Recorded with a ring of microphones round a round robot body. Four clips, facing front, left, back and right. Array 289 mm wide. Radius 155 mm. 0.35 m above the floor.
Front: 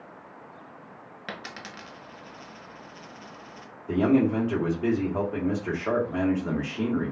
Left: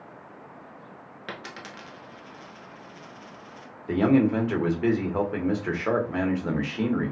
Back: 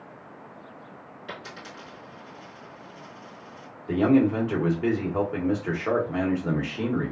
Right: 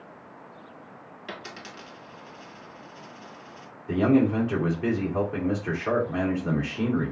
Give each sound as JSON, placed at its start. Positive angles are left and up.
{"t": 1.3, "sound": "a dropped coin", "azimuth_deg": 35, "distance_m": 1.0}
{"t": 3.9, "sound": "a man speaking", "azimuth_deg": 105, "distance_m": 1.3}